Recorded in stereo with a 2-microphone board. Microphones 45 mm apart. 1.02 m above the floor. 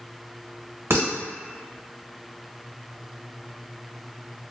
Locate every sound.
0.9 s dishes clattering: 70° right (ahead or behind), 1.0 m